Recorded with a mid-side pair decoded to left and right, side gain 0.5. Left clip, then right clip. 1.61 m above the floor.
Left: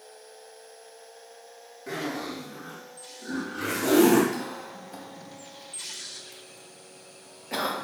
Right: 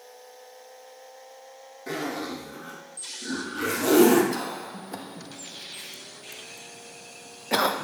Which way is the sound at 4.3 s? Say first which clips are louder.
Right 3 dB; 50° right.